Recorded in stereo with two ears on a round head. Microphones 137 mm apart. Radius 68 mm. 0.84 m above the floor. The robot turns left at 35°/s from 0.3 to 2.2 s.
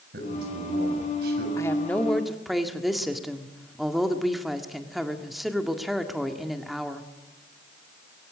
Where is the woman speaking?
20° left (ahead or behind), 1.8 m; by 7.1 s centre (ahead or behind), 1.8 m.